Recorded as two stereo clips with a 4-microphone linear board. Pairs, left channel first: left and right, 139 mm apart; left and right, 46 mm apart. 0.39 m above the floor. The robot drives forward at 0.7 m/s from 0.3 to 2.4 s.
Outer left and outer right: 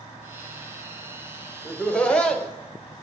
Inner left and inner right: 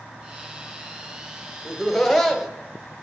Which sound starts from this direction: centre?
Laughter, at 1.6 s.